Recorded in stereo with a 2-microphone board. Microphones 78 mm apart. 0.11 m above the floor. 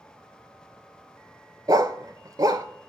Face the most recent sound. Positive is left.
turn(degrees=-55)  # may be behind; listen again after turning